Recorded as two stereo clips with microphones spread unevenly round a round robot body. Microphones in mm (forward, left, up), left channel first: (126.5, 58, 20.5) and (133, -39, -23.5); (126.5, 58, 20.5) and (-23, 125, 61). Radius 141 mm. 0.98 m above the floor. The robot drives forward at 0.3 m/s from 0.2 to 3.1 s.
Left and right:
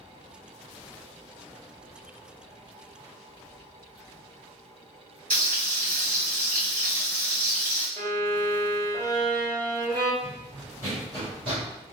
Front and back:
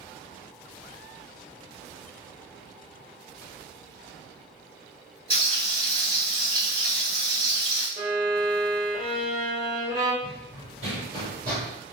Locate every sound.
5.3 s frying: 140° right, 1.6 m
8.0 s a violin: 150° right, 0.7 m
10.2 s running footsteps: 170° left, 1.7 m; by 11.7 s 145° right, 1.3 m